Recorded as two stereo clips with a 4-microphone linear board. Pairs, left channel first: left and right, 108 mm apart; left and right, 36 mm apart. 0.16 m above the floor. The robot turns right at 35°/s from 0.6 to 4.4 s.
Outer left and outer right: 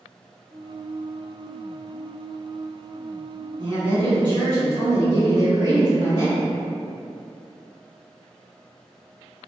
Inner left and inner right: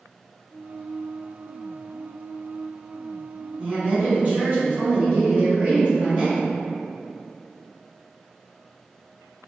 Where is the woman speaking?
40° right (ahead or behind), 1.8 m.